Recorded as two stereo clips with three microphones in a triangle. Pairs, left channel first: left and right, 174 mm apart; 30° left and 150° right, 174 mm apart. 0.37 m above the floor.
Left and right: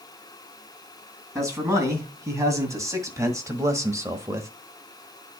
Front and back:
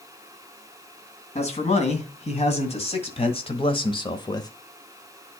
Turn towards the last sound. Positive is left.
turn(degrees=-25)